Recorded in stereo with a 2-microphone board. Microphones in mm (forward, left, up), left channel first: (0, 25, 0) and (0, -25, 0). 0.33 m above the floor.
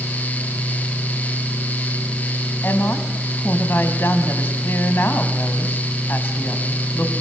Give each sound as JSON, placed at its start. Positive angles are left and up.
{"t": 2.6, "sound": "a woman speaking", "side_deg": 50, "distance_m": 2.5}